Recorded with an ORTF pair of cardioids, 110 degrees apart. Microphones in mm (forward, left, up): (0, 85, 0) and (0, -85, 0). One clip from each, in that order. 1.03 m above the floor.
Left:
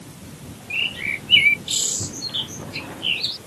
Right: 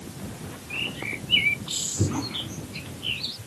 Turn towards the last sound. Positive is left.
turn(degrees=40)